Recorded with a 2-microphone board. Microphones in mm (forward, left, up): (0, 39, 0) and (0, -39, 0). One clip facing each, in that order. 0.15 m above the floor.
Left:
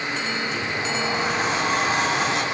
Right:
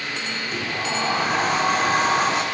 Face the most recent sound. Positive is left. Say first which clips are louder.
# even
turn(degrees=-45)  # may be behind; listen again after turning